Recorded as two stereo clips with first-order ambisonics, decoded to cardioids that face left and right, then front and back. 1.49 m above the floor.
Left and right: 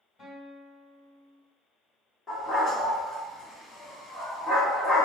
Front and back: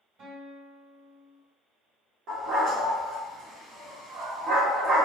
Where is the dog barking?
155° left, 1.4 m.